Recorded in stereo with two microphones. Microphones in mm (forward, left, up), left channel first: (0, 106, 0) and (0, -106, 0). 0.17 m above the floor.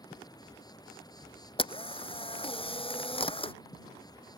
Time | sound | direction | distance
0.0 | an insect | 20° left (ahead or behind) | ?
1.6 | a camera shutter | 25° left (ahead or behind) | ?